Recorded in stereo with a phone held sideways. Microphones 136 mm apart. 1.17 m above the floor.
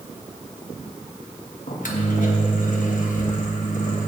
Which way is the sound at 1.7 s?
75° left (ahead or behind).